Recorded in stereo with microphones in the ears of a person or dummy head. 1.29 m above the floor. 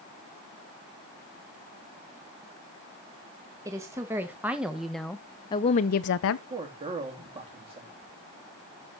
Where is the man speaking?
25° right (ahead or behind), 2.5 m.